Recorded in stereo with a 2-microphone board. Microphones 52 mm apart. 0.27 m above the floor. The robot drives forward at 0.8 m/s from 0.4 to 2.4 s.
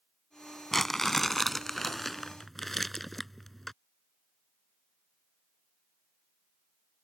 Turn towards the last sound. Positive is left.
turn(degrees=5)  # may be behind; listen again after turning